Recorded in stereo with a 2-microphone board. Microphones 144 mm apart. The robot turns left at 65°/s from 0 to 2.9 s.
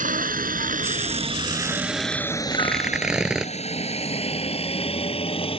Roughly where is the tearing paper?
Left.